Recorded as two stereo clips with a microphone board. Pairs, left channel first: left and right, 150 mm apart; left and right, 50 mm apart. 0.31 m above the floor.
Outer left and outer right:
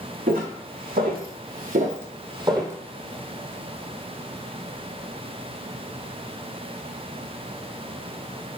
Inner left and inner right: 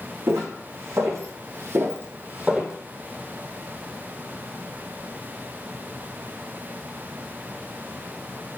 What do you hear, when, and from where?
0.3 s footsteps: 70° right (ahead or behind), 1.3 m; by 2.7 s 20° right (ahead or behind), 0.7 m